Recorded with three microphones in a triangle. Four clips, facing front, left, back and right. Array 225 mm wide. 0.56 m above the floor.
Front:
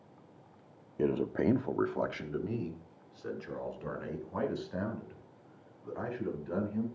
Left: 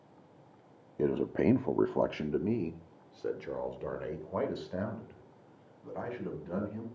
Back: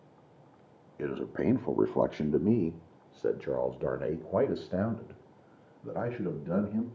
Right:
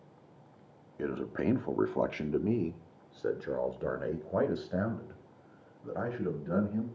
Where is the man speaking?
55° left, 0.7 m; by 6.9 s 160° right, 3 m.